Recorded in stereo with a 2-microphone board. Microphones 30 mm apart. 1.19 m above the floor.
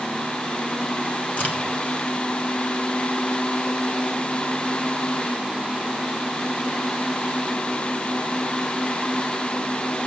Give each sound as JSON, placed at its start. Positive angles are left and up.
{"t": 1.4, "sound": "a crack", "side_deg": 50, "distance_m": 1.3}